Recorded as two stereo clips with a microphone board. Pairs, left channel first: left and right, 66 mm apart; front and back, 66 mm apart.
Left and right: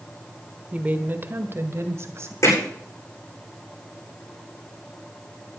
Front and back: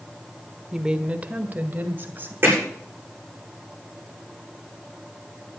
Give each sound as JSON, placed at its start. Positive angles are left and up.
{"t": 0.7, "sound": "a woman speaking", "azimuth_deg": -105, "distance_m": 1.0}
{"t": 2.4, "sound": "hammering", "azimuth_deg": 125, "distance_m": 9.0}